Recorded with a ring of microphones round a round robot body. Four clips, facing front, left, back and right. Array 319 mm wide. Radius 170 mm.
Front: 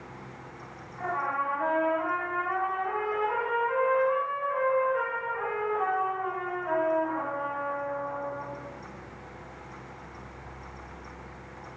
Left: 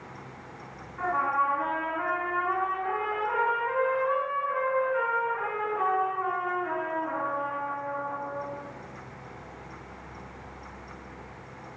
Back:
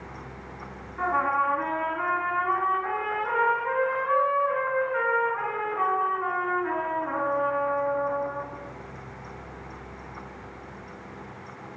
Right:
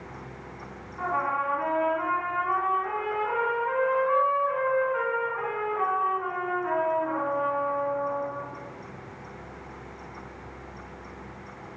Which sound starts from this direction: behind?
A trumpet, at 1.0 s.